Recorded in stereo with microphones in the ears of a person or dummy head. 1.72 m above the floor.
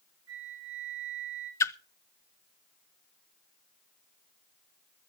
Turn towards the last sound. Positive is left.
turn(degrees=10)  # may be behind; listen again after turning